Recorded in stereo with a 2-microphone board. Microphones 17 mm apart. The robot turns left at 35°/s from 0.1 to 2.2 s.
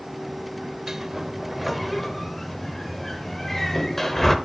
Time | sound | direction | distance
0.9 | a sliding door | 25° right (ahead or behind) | 0.8 m